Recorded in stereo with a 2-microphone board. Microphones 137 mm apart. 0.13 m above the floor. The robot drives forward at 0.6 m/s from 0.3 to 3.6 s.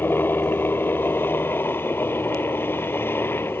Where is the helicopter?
15° left (ahead or behind).